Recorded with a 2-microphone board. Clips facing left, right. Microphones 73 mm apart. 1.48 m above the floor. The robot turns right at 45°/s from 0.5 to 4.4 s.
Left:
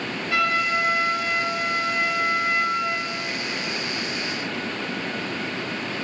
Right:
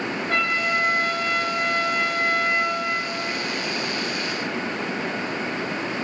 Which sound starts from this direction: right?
A trumpet, at 0.3 s.